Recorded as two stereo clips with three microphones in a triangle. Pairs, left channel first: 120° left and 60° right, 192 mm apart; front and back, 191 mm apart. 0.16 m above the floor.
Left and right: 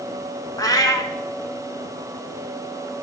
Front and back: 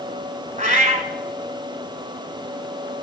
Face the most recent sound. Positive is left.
turn(degrees=180)